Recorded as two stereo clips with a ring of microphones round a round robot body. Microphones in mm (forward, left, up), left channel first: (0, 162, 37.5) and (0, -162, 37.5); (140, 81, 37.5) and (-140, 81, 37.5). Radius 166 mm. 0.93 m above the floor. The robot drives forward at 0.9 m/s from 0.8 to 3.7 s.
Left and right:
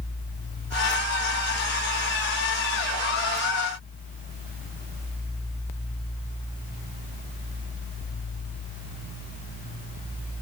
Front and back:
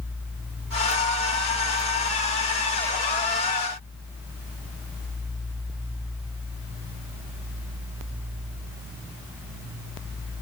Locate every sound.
Only background noise.